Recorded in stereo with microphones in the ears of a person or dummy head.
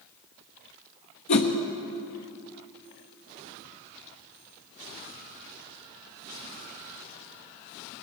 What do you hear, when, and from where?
1.3 s a whoosh: 40° left (ahead or behind), 1.1 m